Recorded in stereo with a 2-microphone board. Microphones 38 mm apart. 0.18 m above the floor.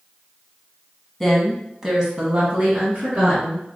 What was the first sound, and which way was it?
A woman speaking, 10° left (ahead or behind).